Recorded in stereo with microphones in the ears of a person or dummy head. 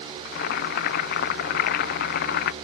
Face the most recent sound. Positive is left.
turn(degrees=60)  # may be behind; listen again after turning